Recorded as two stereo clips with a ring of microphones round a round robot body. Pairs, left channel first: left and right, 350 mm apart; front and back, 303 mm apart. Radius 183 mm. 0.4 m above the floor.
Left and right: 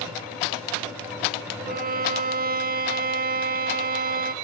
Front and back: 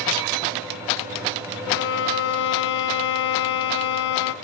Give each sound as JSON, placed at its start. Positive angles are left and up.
{"t": 1.7, "sound": "a violin", "azimuth_deg": -35, "distance_m": 0.6}